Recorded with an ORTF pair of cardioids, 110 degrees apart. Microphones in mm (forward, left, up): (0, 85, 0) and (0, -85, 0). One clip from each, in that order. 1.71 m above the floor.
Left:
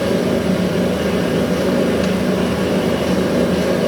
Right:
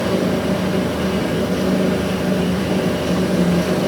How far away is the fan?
About 1.6 m.